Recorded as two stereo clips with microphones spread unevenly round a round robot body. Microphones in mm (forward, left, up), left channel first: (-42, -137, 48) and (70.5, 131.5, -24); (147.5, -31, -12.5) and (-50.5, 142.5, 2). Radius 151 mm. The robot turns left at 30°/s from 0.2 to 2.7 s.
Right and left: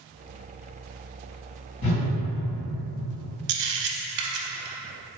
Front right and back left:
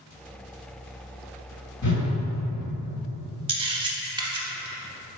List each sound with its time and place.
1.8 s a whoosh: 95° right, 2.0 m; by 2.1 s 105° right, 2.0 m
3.5 s a camera shutter: 105° left, 0.5 m